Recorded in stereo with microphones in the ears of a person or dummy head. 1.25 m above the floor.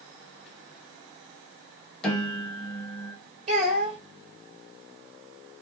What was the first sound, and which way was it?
A piano, 10° left (ahead or behind).